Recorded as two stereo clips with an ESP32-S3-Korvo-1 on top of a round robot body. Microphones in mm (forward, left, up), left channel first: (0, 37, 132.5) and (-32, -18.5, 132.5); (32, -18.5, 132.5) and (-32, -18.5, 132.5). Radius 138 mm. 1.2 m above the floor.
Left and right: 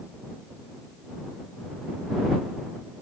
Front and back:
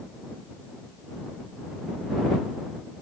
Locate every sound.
Only background noise.